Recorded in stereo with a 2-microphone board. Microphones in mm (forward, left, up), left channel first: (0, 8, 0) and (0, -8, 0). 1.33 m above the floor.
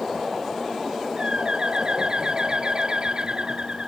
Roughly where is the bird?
Right.